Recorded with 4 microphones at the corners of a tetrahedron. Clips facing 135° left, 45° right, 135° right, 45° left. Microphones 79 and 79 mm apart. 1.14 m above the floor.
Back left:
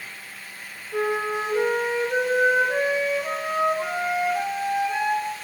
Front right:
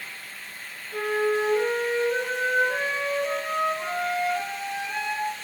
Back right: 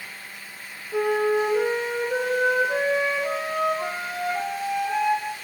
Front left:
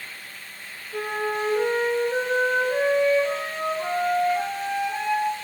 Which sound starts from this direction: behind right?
A flute, at 0.9 s.